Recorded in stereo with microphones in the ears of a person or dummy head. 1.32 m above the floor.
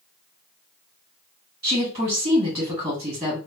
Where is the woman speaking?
15° right (ahead or behind), 1.6 m.